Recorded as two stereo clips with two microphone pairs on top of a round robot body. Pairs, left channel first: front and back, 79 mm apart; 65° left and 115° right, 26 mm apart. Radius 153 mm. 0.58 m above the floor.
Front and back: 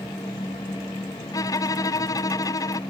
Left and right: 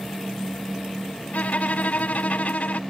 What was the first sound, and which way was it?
A violin, 45° left.